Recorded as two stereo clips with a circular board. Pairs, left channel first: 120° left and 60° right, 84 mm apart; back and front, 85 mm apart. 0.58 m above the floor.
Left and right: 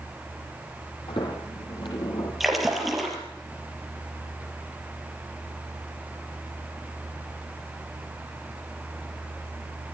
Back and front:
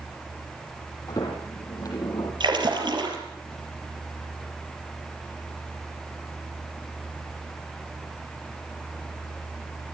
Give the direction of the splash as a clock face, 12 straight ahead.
11 o'clock.